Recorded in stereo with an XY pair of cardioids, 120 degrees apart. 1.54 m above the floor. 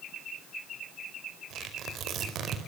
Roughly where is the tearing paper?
Ahead right.